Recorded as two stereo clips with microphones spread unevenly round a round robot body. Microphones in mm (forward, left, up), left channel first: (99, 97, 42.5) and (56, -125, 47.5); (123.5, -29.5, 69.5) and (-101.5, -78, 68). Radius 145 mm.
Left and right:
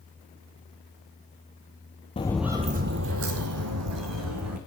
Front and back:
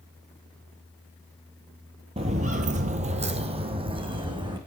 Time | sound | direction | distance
2.2 | footsteps | 135° left | 1.0 m